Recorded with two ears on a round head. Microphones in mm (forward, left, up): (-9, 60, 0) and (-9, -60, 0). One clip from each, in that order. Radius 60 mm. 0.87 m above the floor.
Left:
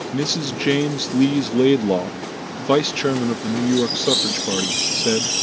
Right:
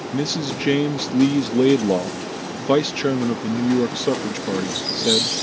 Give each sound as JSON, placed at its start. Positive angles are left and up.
{"t": 0.1, "sound": "a man speaking", "side_deg": 15}